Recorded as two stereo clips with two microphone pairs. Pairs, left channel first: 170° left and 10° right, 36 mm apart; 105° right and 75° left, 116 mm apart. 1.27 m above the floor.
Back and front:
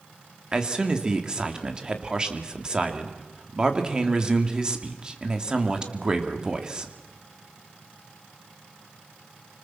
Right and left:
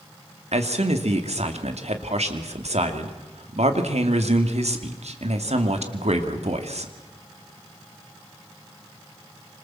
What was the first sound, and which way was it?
A man speaking, 55° left.